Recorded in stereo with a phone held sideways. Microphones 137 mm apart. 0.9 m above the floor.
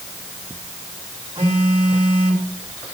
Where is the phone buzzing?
45° right (ahead or behind), 4 m.